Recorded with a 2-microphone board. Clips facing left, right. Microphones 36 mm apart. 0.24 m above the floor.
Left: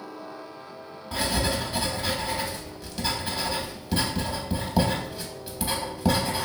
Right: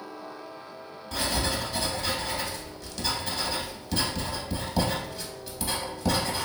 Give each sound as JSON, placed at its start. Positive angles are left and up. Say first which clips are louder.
{"t": 1.1, "sound": "writing", "louder": "left 2 dB", "side_deg": 15, "distance_m": 0.7}